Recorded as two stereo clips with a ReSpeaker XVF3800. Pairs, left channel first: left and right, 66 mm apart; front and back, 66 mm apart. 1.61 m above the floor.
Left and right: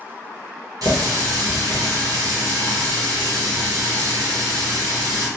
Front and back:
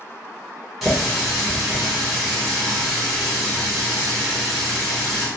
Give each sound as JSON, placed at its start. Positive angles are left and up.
{"t": 0.8, "sound": "a running tap", "azimuth_deg": -90, "distance_m": 1.4}